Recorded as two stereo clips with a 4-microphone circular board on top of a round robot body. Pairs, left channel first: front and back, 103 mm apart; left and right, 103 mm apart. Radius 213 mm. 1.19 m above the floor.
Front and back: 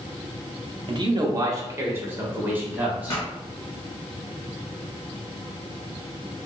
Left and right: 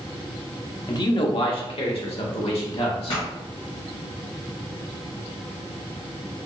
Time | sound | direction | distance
0.9 | a man speaking | 140° left | 0.8 m
3.1 | a pop | 55° left | 1.3 m